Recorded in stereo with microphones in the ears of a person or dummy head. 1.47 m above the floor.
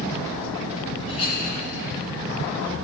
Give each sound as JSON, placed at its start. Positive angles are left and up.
{"t": 1.1, "sound": "a clink", "side_deg": 35, "distance_m": 6.0}